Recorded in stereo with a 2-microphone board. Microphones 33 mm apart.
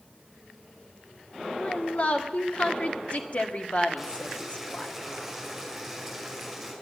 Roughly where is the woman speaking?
Left.